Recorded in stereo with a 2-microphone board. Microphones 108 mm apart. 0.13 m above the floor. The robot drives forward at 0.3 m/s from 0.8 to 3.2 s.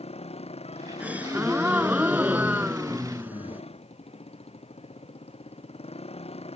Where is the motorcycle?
65° left (ahead or behind).